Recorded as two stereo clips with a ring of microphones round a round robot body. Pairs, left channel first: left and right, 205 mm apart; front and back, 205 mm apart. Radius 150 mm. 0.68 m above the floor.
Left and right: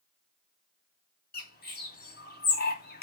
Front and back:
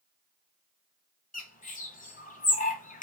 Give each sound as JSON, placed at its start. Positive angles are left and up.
{"t": 1.3, "sound": "a bird", "azimuth_deg": 50, "distance_m": 1.6}